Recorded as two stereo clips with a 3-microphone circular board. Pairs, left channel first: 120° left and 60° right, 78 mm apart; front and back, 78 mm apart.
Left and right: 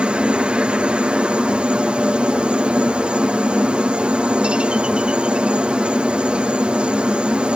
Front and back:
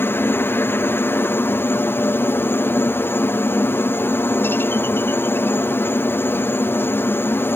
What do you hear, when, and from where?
0.0 s a helicopter: straight ahead